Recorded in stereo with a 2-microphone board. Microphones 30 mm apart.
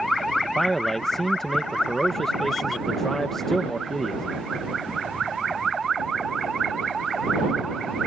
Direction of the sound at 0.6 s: 15° left (ahead or behind).